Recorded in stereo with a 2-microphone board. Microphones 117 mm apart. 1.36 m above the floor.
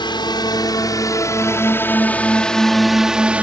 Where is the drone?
40° left (ahead or behind); by 3.4 s 15° right (ahead or behind).